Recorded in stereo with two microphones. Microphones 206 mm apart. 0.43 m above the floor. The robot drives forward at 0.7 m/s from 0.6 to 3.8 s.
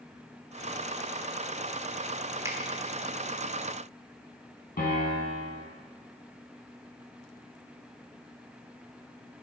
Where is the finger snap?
15° right (ahead or behind), 0.9 m.